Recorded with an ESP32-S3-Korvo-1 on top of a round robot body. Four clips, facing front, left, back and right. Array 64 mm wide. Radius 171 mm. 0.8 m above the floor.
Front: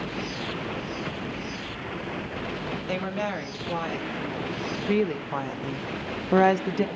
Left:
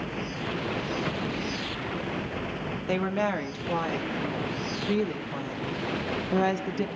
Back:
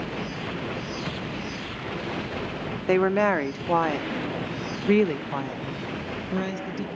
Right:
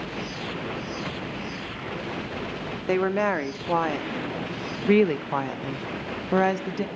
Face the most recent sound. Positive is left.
turn(degrees=-20)